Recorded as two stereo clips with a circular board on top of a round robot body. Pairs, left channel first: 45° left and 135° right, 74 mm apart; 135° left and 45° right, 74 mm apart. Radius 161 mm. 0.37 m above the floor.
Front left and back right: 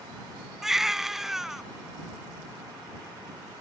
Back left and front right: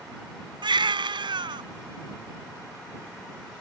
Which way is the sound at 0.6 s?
50° right.